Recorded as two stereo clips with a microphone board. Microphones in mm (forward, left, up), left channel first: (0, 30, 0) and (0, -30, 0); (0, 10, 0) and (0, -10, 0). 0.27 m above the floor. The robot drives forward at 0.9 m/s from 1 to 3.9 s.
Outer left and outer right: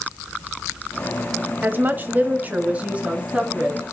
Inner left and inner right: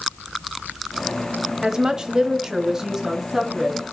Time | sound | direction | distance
1.6 | a woman speaking | 35° right (ahead or behind) | 1.1 m